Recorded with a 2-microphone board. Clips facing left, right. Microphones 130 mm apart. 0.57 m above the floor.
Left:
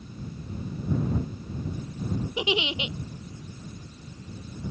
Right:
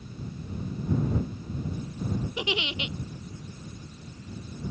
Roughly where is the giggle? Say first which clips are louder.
Left 4 dB; centre.